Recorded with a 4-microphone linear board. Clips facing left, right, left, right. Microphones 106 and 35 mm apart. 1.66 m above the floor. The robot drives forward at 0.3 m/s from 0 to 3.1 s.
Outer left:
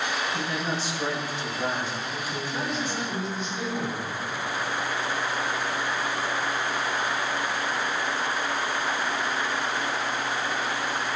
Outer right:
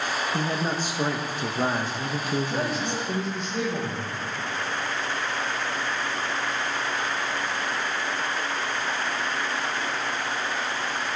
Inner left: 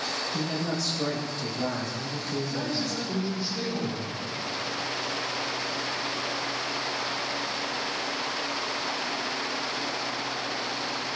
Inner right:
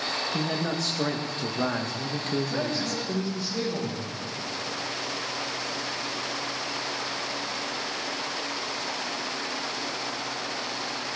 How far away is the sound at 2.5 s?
About 6.5 m.